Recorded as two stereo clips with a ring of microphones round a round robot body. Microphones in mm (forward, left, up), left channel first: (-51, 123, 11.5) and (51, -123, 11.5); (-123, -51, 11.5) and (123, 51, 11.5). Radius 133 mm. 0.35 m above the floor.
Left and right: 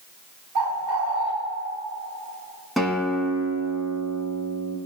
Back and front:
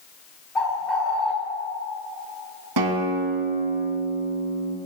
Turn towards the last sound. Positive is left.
turn(degrees=20)